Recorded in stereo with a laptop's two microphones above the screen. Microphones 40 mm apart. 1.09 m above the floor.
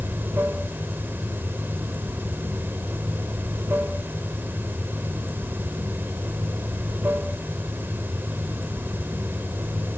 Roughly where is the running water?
Right.